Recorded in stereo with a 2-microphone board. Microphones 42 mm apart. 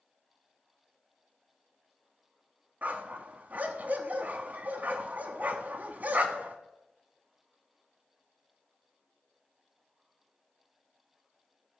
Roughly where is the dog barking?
Right.